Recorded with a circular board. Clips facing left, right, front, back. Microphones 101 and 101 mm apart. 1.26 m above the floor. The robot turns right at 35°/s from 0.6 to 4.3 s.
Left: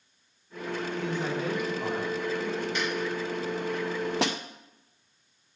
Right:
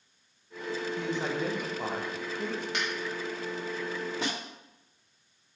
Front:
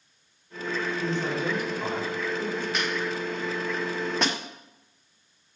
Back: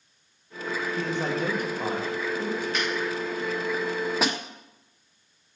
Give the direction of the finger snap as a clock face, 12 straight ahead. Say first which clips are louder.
Left 3 dB, back 1 dB; 3 o'clock.